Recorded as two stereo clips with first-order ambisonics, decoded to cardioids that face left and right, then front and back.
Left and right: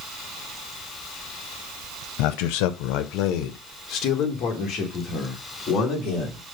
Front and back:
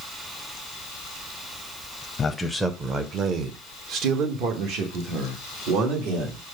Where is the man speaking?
70° left, 0.6 m; by 6.4 s 155° left, 3 m.